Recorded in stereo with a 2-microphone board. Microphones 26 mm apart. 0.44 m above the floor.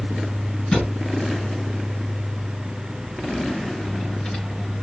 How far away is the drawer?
About 2.5 m.